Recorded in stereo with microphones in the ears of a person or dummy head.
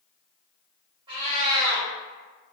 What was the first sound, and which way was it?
A cat meowing, 25° right (ahead or behind).